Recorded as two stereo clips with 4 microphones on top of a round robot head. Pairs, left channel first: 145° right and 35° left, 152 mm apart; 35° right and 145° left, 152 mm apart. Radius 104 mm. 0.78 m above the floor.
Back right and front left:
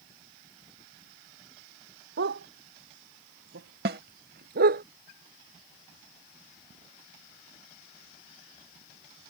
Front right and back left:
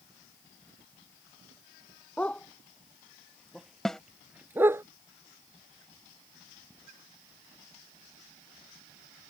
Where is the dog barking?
45° left; by 4.8 s 70° left.